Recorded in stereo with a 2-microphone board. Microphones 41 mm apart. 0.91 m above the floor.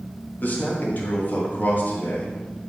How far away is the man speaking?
About 1.4 m.